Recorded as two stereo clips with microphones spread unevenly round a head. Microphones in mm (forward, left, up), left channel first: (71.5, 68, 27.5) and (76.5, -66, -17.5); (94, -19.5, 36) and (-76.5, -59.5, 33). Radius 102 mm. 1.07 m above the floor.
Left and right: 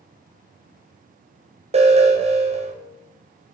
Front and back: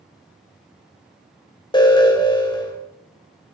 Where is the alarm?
50° right, 3 m.